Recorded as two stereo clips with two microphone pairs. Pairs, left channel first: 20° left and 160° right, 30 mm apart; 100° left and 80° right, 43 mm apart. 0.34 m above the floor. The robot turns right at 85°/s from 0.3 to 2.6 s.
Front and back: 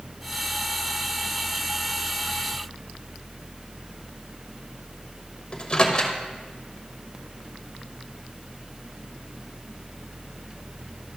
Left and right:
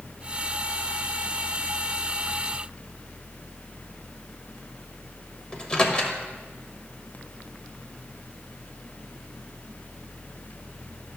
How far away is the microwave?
About 1.0 m.